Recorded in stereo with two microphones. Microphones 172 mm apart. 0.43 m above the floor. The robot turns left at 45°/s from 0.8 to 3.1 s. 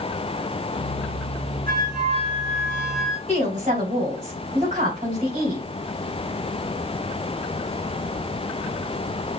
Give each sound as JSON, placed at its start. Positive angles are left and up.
{"t": 1.7, "sound": "a flute", "azimuth_deg": -120, "distance_m": 1.9}
{"t": 3.3, "sound": "a woman speaking", "side_deg": -40, "distance_m": 3.0}